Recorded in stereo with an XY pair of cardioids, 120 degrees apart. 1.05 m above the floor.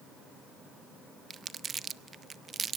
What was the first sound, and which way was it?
Crumpling, 35° right.